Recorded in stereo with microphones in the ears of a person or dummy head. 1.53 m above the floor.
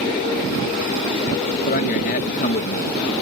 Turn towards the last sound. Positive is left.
turn(degrees=50)  # may be behind; listen again after turning